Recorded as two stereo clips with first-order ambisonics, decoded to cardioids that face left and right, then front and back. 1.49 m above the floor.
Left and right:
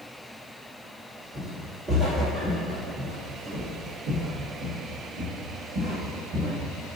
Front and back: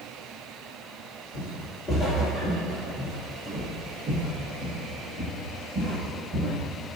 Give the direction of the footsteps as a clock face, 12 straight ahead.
1 o'clock.